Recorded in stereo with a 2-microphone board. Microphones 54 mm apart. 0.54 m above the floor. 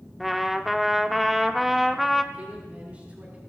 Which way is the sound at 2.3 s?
25° right (ahead or behind).